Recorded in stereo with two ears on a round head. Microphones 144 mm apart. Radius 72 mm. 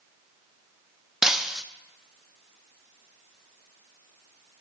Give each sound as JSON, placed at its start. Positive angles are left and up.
{"t": 1.2, "sound": "breaking glass", "side_deg": -5, "distance_m": 0.6}